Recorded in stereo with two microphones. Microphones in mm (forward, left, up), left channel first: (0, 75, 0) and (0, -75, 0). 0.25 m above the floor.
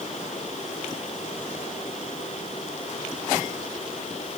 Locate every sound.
Only background noise.